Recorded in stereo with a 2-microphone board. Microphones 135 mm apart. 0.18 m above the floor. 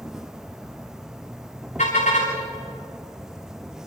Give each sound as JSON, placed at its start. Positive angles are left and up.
{"t": 0.0, "sound": "an insect", "side_deg": -5, "distance_m": 0.8}
{"t": 1.8, "sound": "a car horn", "side_deg": 65, "distance_m": 9.0}